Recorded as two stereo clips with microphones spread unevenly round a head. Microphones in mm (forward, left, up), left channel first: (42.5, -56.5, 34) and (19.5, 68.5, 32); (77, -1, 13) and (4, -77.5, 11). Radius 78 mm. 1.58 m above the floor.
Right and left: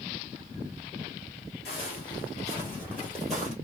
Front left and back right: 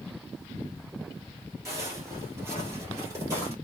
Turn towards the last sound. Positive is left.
turn(degrees=180)